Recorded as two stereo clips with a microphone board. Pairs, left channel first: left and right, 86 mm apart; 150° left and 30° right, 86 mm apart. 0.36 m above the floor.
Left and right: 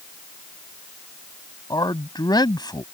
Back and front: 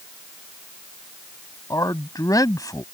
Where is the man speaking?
115° left.